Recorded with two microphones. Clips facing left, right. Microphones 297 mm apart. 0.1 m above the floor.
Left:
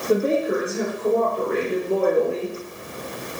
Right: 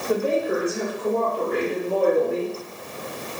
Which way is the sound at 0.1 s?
25° left (ahead or behind).